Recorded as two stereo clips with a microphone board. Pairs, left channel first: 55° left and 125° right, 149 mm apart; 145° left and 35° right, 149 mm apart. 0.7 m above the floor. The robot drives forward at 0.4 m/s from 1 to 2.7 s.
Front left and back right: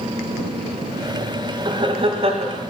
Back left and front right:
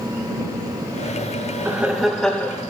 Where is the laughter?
100° right, 0.6 m; by 2.6 s 140° right, 0.7 m.